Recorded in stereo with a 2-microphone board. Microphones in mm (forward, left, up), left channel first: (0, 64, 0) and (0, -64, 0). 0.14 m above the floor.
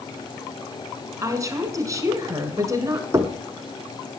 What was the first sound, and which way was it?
A woman speaking, 25° right (ahead or behind).